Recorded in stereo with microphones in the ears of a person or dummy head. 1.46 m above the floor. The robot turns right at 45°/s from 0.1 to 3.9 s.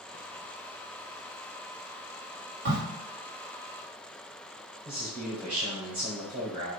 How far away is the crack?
About 1.7 m.